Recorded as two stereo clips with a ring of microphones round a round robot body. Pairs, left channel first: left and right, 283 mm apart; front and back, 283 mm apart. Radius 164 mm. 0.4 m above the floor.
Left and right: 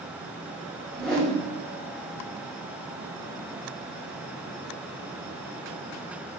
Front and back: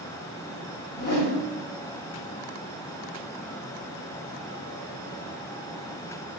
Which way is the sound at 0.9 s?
5° left.